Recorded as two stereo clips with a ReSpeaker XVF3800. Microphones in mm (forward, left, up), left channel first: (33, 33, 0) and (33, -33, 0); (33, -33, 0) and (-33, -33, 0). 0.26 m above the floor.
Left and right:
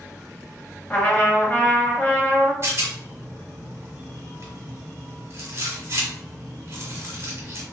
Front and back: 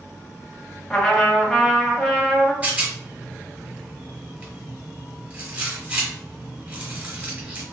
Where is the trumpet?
70° left, 0.8 m.